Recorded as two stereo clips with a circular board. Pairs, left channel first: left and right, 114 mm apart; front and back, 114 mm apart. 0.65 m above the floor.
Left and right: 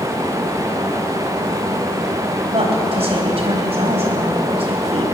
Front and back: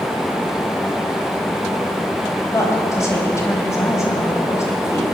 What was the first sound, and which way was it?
A woman speaking, 65° right.